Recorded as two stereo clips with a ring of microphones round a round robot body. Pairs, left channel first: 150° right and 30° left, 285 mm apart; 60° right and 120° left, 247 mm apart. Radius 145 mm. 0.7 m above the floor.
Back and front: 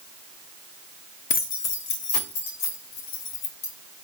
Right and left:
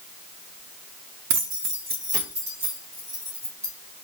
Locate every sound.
1.3 s keys jangling: 145° left, 0.5 m; by 3.7 s 160° right, 2.5 m